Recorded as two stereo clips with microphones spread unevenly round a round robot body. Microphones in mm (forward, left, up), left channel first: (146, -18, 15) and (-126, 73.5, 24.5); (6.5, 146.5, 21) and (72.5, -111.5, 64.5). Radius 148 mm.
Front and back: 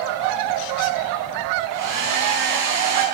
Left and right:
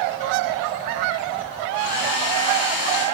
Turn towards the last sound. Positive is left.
turn(degrees=140)